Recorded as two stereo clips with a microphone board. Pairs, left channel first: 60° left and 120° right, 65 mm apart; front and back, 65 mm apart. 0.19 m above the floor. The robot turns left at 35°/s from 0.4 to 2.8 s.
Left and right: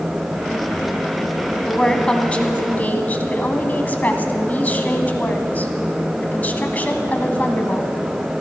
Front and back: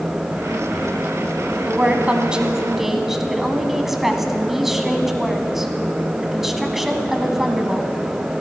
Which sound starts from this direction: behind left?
A woman speaking, at 1.6 s.